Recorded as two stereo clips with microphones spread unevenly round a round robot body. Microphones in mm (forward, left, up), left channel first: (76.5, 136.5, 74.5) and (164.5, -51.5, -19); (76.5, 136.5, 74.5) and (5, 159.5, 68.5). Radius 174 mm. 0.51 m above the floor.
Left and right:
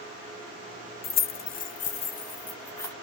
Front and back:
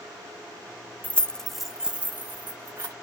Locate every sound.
1.0 s keys jangling: 55° left, 0.6 m; by 2.9 s 145° right, 0.8 m